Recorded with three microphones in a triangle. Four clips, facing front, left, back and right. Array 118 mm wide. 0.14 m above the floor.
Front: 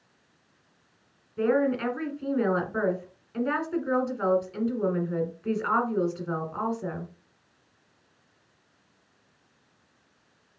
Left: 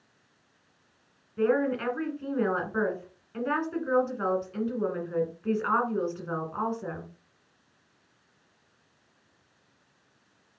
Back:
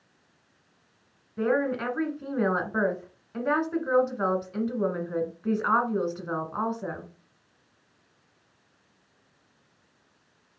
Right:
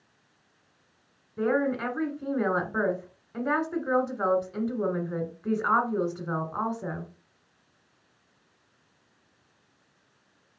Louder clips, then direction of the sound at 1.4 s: Even, front 2 dB; 135° right.